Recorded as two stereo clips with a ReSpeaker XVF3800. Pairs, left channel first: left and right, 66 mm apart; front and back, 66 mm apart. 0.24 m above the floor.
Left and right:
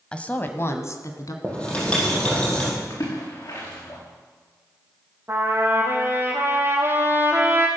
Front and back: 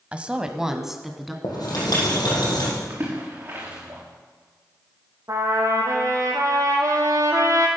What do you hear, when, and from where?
0.1 s a woman speaking: 140° left, 1.1 m; by 1.3 s 90° left, 2.0 m
1.4 s writing: 20° left, 5 m
2.9 s a splash: 120° left, 6 m
5.3 s a trumpet: 140° right, 3 m